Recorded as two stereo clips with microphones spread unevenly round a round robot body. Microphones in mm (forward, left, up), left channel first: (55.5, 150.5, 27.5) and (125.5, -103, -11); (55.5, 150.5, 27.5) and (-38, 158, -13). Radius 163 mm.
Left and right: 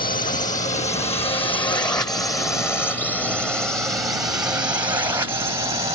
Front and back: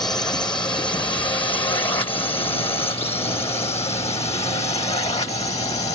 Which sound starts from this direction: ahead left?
A drone, at 0.0 s.